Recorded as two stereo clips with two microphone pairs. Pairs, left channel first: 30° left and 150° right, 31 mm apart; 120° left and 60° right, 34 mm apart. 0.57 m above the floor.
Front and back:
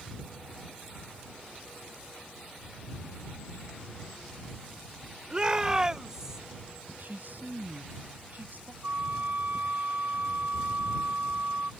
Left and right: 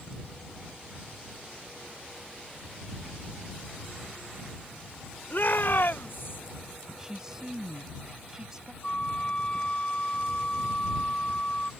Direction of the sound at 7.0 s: 135° right.